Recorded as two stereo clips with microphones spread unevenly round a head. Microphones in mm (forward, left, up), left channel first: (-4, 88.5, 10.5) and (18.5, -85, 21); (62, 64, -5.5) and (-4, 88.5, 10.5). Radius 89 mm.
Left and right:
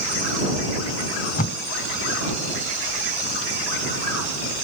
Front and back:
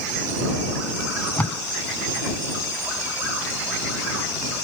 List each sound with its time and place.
1.0 s tape being pulled: 50° left